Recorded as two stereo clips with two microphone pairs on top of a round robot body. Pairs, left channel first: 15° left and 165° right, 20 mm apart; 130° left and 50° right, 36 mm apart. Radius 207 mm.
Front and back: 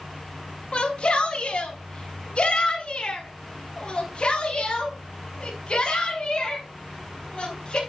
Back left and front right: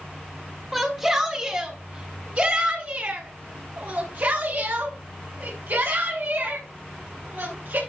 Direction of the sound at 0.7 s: 20° left.